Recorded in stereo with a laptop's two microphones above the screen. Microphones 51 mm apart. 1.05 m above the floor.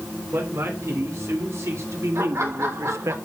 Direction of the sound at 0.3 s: 75° right (ahead or behind).